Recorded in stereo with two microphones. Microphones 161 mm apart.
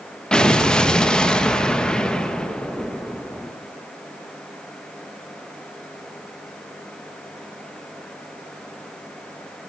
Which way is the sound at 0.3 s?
5° left (ahead or behind).